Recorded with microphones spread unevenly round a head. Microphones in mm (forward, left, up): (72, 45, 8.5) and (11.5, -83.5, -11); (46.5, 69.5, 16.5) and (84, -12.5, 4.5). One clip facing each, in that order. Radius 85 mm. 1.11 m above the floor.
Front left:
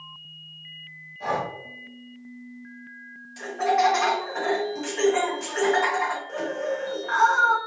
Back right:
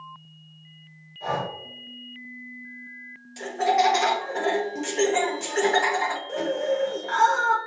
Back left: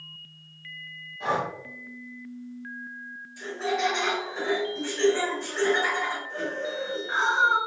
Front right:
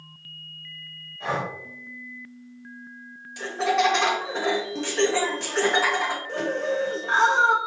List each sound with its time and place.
1.2 s breathing: 45° left, 2 m
3.4 s laughter: 55° right, 1.0 m